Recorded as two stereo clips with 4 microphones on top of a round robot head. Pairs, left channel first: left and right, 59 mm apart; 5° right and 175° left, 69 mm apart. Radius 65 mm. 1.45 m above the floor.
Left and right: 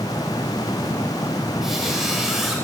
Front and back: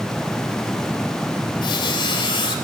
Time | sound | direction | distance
1.6 | a squeak | 5° right | 3 m